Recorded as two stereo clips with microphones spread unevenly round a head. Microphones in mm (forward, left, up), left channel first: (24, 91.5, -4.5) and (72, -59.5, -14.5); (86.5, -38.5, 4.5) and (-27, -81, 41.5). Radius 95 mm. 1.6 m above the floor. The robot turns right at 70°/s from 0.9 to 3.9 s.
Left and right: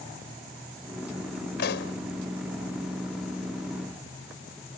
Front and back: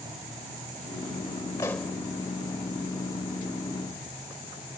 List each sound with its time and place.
1.6 s a pop: 95° left; by 1.9 s 120° left